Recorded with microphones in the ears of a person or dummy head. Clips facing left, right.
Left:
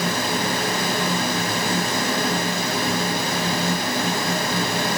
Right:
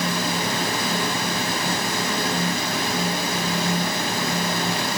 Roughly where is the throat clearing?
No throat clearing in this recording.